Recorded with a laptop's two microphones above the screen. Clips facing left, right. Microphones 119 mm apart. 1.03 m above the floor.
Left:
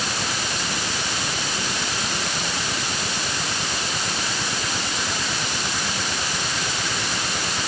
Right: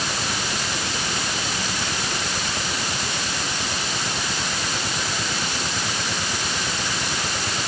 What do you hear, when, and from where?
Only background noise.